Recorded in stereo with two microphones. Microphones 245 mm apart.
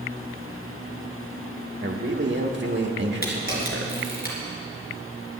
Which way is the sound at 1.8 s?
50° right (ahead or behind).